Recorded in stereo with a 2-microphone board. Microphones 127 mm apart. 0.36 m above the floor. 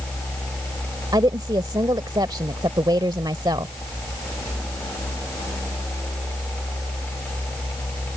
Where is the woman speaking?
35° right (ahead or behind).